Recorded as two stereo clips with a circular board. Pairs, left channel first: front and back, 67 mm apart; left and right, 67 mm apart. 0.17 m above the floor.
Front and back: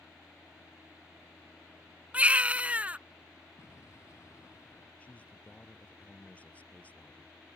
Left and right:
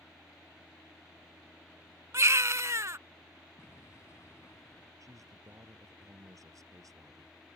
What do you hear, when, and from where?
2.1 s a baby crying: 115° right
3.6 s an explosion: 45° left
5.0 s a man speaking: 65° right